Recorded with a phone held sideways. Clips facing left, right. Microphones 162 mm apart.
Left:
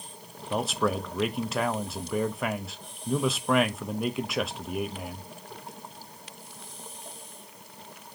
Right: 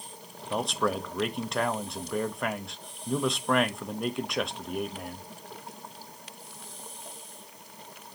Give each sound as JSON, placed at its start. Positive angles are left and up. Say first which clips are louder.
{"t": 0.5, "sound": "a man speaking", "louder": "left 1 dB", "side_deg": 5, "distance_m": 0.5}